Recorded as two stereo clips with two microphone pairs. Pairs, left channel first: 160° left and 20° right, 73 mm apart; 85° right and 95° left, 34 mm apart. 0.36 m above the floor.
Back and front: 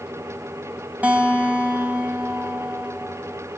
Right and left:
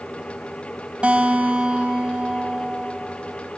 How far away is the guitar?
About 2 m.